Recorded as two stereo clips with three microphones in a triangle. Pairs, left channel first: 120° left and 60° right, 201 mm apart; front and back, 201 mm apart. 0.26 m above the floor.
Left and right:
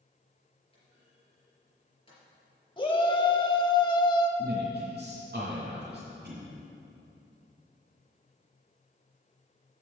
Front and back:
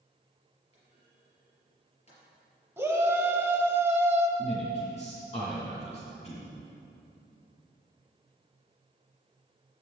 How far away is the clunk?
About 4 m.